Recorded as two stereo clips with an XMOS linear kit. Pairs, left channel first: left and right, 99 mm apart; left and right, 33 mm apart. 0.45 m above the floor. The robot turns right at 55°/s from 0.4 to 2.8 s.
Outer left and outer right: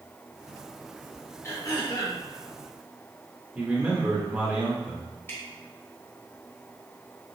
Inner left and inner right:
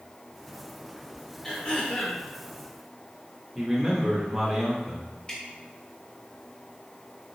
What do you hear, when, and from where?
1.4 s throat clearing: 35° left, 1.0 m; by 2.2 s 80° left, 1.0 m
3.5 s a man speaking: 15° right (ahead or behind), 0.8 m
5.3 s dripping: 25° left (ahead or behind), 1.0 m